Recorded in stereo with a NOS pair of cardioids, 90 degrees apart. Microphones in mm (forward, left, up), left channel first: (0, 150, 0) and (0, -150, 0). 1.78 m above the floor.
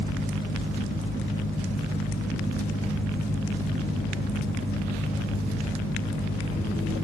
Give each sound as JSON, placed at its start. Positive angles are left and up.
{"t": 0.0, "sound": "a fan", "azimuth_deg": 10, "distance_m": 2.5}